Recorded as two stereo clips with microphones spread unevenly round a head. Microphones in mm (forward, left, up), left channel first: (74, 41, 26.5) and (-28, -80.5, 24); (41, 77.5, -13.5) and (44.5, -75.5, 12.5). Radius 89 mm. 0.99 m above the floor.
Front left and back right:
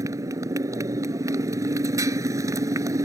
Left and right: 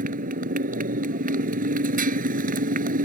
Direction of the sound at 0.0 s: 60° right.